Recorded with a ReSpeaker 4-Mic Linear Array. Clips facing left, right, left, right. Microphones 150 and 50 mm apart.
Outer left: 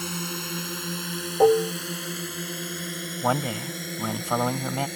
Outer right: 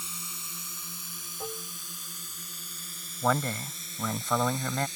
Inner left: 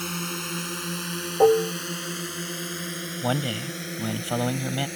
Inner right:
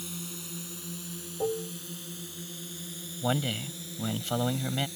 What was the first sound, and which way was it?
A drone, 70° left (ahead or behind).